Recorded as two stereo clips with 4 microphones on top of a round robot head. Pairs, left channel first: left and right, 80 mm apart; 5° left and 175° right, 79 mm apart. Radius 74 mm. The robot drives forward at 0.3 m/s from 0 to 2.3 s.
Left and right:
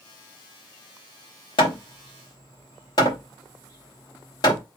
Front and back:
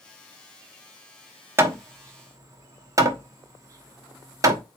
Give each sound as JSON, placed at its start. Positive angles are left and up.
{"t": 1.6, "sound": "hammering", "azimuth_deg": 125, "distance_m": 0.9}